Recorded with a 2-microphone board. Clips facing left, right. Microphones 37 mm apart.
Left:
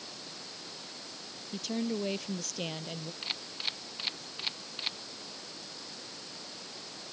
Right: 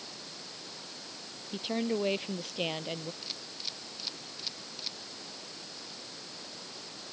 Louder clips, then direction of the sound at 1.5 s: Right 2 dB; 30° right (ahead or behind).